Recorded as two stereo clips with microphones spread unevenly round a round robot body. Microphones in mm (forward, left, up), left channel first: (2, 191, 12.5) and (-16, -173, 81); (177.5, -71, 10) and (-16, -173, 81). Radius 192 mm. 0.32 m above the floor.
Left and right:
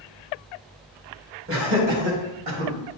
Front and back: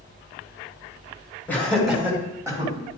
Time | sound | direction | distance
1.5 | laughter | 35° right | 2 m